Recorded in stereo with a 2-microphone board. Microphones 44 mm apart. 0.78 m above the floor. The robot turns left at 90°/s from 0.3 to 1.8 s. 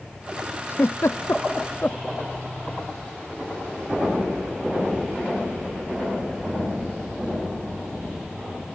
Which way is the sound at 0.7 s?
45° left (ahead or behind).